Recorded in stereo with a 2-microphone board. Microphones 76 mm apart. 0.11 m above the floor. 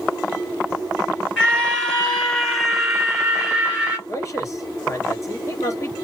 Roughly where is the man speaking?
Left.